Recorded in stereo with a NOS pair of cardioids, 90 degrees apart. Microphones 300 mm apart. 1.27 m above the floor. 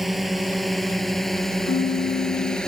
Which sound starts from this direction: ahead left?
A piano, at 1.7 s.